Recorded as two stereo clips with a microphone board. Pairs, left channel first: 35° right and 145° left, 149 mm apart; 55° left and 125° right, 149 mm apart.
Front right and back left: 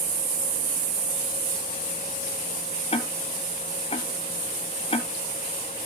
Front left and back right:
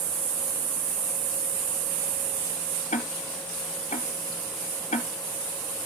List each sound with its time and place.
2.9 s ticking: 15° left, 0.7 m